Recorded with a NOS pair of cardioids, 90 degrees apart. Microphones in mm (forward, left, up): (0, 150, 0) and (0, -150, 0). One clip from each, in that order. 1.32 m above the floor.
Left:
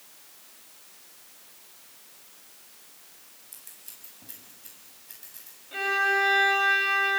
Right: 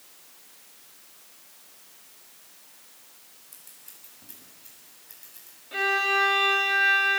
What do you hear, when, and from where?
3.5 s scissors: 20° left, 8 m
5.7 s a violin: 25° right, 3 m